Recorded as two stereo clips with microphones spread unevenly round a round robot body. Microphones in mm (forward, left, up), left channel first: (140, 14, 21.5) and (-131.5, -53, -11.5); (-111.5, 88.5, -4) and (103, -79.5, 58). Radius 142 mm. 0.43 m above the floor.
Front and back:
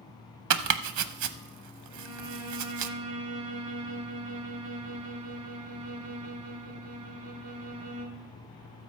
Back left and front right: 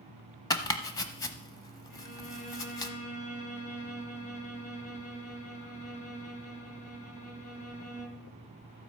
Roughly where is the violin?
Behind.